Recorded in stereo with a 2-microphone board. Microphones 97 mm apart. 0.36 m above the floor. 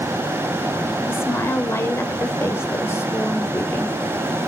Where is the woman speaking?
25° left (ahead or behind), 1.2 m.